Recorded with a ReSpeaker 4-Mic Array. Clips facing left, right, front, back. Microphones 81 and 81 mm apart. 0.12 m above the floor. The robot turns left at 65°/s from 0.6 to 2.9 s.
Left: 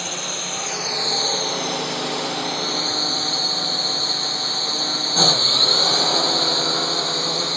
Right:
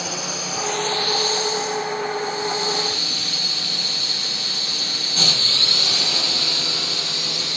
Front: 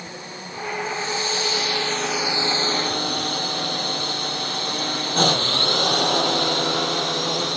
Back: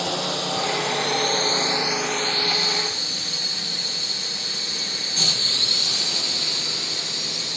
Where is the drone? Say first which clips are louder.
Right 1 dB, back 10 dB; 175° right; by 7.6 s 35° left.